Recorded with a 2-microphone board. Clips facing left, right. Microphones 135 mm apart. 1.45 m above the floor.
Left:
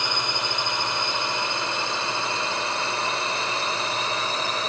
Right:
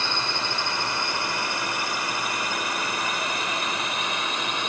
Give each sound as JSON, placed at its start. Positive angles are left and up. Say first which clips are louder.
{"t": 0.0, "sound": "a drone", "louder": "left 1 dB", "side_deg": 15}